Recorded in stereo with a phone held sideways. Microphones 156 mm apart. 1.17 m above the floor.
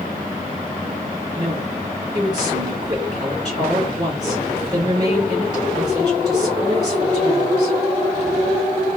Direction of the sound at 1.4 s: 25° right (ahead or behind).